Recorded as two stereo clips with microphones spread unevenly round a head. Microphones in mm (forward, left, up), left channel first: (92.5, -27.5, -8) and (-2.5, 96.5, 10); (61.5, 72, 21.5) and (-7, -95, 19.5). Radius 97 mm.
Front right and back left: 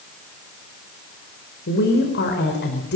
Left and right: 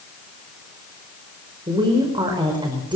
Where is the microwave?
I don't hear a microwave.